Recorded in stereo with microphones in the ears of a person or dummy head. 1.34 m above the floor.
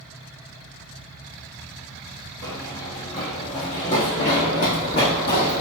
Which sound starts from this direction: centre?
Running footsteps, at 2.4 s.